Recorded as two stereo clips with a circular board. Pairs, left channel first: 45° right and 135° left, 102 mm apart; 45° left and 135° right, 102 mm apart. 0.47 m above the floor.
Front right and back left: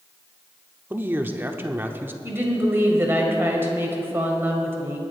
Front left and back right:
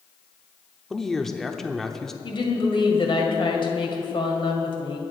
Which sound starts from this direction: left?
A woman speaking, at 2.2 s.